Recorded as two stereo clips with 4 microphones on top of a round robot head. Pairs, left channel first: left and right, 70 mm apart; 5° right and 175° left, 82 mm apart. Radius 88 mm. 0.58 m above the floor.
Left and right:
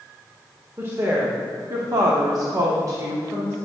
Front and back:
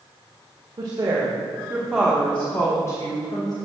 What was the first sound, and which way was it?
A woman speaking, 135° right.